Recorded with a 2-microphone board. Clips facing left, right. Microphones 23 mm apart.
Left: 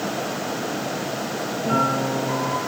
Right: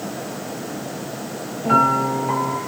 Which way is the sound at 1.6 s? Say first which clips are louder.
Right 6 dB; 20° right (ahead or behind).